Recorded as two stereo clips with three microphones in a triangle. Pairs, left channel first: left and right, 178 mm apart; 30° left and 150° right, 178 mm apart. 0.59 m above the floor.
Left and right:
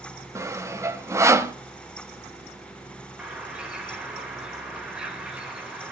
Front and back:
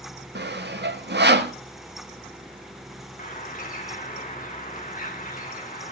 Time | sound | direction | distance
0.3 | sawing | 165° right | 1.1 m
3.2 | a bird | 5° right | 2.5 m